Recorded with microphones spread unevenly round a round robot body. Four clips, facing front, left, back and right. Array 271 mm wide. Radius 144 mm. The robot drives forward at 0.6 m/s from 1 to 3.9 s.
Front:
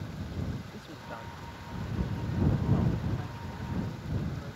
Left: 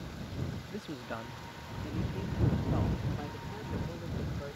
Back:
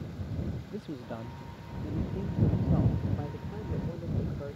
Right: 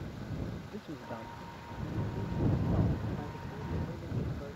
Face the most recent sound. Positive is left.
turn(degrees=175)